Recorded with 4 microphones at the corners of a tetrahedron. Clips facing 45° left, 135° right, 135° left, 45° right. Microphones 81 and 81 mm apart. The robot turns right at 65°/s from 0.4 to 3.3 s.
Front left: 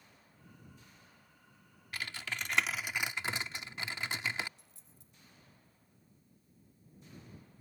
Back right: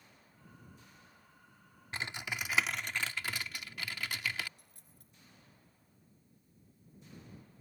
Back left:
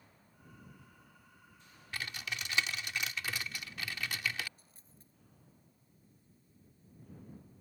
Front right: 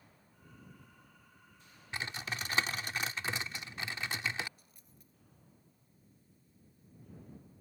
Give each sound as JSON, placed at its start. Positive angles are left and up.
{"t": 1.9, "sound": "typing on a keyboard", "azimuth_deg": -95}
{"t": 4.6, "sound": "a dropped coin", "azimuth_deg": -165}